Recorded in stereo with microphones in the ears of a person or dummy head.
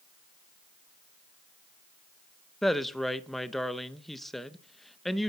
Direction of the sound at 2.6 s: 5° left (ahead or behind).